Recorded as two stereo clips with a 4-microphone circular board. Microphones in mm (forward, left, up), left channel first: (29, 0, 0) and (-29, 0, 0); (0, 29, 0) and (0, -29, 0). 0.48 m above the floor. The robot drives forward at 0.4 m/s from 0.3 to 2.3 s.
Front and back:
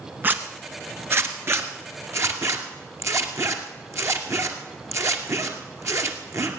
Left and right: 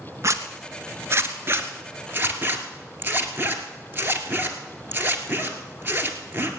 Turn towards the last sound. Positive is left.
turn(degrees=-145)